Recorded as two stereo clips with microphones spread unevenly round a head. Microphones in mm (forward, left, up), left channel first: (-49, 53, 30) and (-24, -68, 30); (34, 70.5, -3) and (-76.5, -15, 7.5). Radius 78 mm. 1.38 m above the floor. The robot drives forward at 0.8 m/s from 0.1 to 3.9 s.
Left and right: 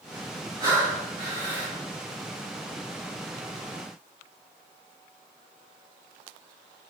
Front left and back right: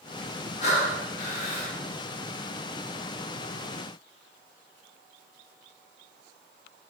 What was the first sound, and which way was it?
Breathing, 15° right.